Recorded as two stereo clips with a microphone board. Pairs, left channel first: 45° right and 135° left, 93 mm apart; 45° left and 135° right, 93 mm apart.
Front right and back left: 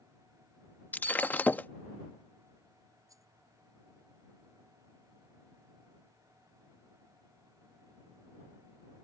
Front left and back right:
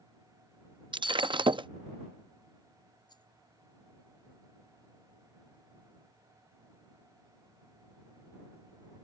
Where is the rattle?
85° left.